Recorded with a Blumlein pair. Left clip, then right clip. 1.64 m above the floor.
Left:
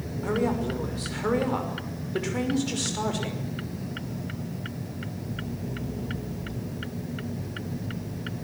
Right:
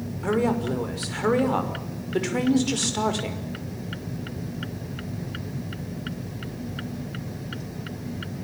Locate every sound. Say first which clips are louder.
0.2 s a woman speaking: right 3 dB; 15° right, 5.5 m